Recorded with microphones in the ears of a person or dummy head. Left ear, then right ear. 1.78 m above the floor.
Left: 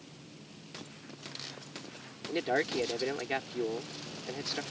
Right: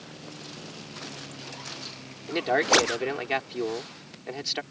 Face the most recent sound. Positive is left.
turn(degrees=-20)  # may be behind; listen again after turning